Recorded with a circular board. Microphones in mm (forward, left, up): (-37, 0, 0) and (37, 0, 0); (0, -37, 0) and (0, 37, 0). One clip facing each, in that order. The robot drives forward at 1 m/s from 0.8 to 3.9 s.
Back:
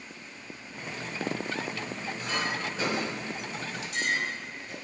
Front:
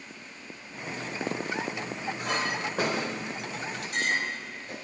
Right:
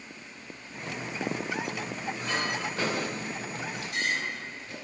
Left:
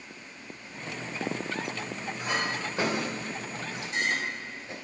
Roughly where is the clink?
Ahead.